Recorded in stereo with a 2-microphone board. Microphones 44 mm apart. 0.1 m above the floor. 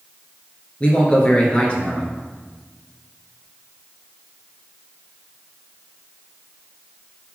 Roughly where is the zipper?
I don't hear a zipper.